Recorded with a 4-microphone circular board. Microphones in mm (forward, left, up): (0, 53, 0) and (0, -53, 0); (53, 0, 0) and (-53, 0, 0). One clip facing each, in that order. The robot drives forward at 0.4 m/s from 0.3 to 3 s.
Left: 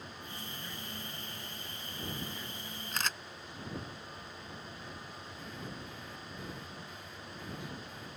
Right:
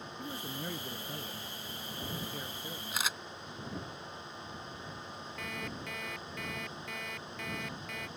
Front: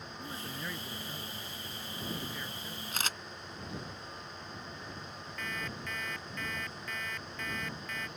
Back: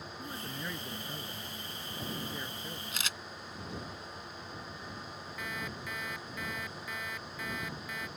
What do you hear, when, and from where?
0.2 s a man speaking: 95° right; by 2.8 s 120° right
2.9 s a camera shutter: 10° right
5.4 s an alarm clock: 100° right